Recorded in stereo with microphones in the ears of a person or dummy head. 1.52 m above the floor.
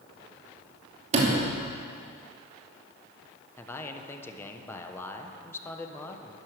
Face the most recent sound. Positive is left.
turn(degrees=15)  # may be behind; listen again after turning